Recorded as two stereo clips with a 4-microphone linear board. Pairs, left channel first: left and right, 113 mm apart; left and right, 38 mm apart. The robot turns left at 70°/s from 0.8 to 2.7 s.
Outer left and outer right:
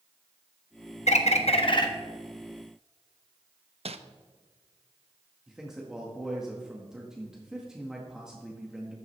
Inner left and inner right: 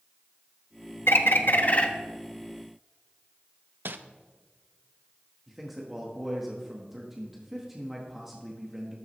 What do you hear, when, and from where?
1.1 s a bird: 95° left, 1.1 m; by 1.9 s 35° left, 1.1 m
3.9 s crumpling: 65° right (ahead or behind), 0.7 m
5.5 s a man speaking: 5° right (ahead or behind), 1.5 m